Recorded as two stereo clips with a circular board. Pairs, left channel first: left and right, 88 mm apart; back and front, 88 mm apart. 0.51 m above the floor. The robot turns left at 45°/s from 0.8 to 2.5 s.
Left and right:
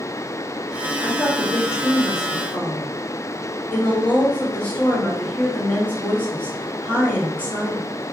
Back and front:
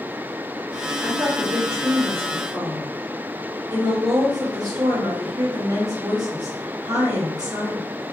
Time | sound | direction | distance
1.0 | a woman speaking | 90° left | 1.6 m